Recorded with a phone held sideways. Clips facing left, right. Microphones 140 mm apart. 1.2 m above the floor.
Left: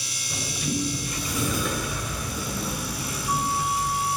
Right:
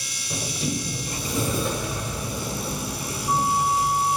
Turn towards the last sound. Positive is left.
turn(degrees=-35)  # may be behind; listen again after turning